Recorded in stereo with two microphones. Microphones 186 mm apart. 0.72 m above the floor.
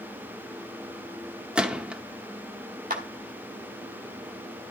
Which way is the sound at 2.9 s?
45° right (ahead or behind).